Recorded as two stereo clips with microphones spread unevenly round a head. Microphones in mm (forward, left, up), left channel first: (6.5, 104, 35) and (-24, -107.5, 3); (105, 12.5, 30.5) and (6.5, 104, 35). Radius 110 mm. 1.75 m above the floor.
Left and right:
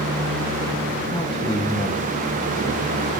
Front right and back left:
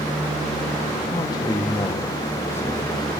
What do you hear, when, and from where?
1.1 s a man speaking: 15° left, 1.1 m; by 3.0 s 30° left, 2 m